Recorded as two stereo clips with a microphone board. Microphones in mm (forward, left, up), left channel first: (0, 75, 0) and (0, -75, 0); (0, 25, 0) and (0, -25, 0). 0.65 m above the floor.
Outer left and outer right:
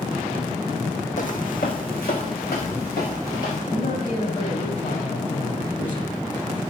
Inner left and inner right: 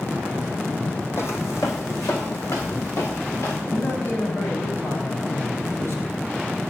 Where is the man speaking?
60° left (ahead or behind), 3 m.